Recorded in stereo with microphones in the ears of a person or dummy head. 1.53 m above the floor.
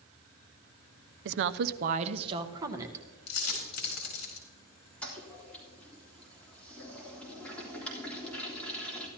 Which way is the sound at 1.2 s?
65° right (ahead or behind).